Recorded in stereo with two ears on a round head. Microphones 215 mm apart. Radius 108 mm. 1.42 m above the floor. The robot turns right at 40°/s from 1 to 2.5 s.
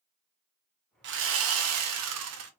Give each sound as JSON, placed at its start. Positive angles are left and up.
{"t": 1.0, "sound": "sawing", "azimuth_deg": -125, "distance_m": 1.0}